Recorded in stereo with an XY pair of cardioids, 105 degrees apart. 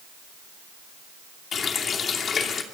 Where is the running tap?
50° left, 2.5 m.